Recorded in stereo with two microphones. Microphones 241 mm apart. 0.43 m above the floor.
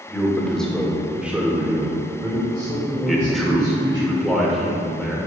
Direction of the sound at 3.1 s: Centre (ahead or behind).